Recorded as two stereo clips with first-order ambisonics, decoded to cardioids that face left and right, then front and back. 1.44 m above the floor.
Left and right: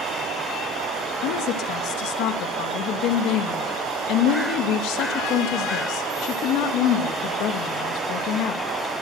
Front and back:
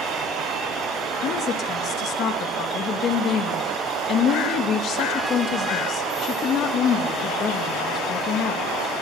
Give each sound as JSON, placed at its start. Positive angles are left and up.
{"t": 1.2, "sound": "a woman speaking", "azimuth_deg": 55, "distance_m": 2.5}